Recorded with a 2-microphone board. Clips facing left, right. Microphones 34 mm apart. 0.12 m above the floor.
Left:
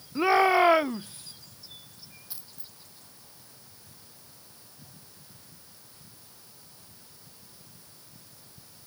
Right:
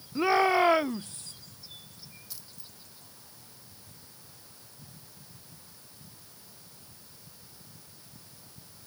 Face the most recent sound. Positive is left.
turn(degrees=20)  # may be behind; listen again after turning